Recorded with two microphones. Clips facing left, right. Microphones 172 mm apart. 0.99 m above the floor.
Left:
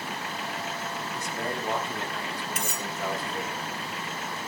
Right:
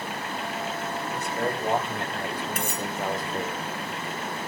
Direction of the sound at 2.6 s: 55° right (ahead or behind).